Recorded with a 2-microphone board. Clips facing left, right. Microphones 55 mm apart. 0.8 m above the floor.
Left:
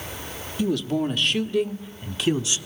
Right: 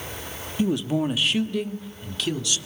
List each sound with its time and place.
0.6 s a man speaking: 25° right (ahead or behind), 1.4 m; by 2.6 s 25° left (ahead or behind), 1.9 m